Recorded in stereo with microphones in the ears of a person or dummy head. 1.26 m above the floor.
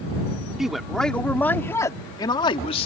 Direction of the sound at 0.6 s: Centre (ahead or behind).